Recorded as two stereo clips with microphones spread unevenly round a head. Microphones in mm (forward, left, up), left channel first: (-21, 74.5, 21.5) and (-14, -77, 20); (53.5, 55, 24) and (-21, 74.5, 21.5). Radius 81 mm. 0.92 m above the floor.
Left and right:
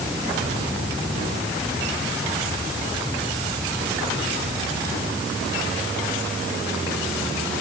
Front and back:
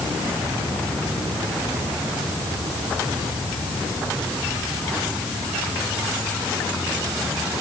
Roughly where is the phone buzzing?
No phone buzzing in this recording.